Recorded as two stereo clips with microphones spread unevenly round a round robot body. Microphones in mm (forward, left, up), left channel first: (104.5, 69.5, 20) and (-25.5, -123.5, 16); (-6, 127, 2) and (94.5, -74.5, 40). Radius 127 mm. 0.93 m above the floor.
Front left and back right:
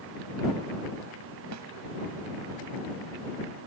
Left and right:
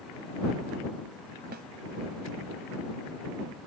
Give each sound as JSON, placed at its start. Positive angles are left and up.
{"t": 1.5, "sound": "a snare drum", "azimuth_deg": -120}